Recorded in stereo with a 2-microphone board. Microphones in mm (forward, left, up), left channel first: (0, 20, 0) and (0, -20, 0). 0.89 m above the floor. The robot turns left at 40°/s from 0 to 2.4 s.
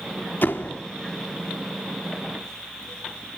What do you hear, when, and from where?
0.4 s a door slam: 55° left (ahead or behind), 1.4 m; by 0.8 s 70° left (ahead or behind), 1.4 m